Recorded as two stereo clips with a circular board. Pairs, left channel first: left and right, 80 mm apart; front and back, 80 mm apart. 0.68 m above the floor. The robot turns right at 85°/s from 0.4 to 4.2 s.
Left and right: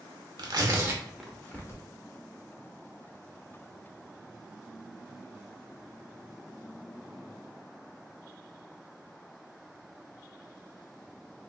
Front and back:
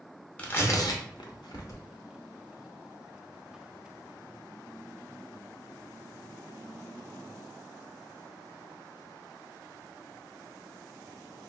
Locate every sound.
0.4 s tearing paper: 70° right, 0.6 m; by 1.8 s 50° left, 0.6 m